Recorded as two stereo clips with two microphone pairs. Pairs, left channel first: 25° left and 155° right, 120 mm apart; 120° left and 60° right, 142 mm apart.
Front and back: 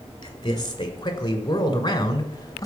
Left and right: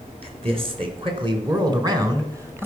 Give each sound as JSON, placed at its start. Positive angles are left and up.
{"t": 0.2, "sound": "a man speaking", "azimuth_deg": -20, "distance_m": 3.0}